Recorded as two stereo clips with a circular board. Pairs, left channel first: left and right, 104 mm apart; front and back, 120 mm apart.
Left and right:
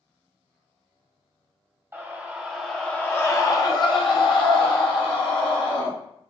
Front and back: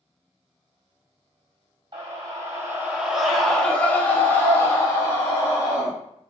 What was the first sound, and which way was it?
A scream, 145° right.